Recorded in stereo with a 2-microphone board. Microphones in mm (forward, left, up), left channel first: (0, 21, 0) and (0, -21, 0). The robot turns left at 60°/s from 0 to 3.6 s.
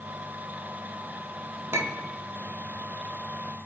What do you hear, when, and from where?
1.7 s a clink: 85° right, 0.6 m; by 2.1 s 60° right (ahead or behind), 0.6 m